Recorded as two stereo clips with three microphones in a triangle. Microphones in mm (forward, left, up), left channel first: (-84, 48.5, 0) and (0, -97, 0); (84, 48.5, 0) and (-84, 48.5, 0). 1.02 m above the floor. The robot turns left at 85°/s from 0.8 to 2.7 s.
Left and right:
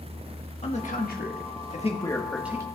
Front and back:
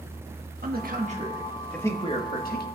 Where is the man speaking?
160° left, 1.4 m; by 2.6 s 5° left, 1.4 m.